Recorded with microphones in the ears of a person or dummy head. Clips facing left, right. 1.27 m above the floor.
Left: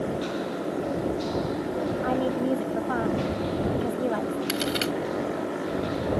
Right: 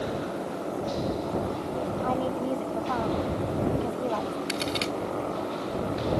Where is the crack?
10° left (ahead or behind).